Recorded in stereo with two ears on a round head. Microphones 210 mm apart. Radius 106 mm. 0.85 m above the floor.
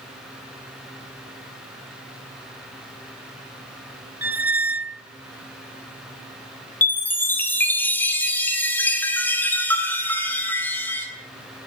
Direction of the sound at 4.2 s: 5° right (ahead or behind).